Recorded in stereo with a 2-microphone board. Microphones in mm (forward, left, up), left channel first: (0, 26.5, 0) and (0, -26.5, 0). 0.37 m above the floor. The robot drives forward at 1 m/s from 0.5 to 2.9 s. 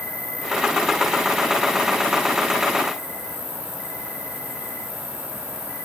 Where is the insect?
75° left (ahead or behind), 8.5 m; by 5.8 s 65° left (ahead or behind), 9.5 m.